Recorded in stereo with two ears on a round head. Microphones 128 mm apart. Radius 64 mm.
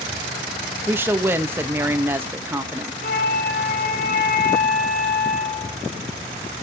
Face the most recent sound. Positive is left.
turn(degrees=65)  # may be behind; listen again after turning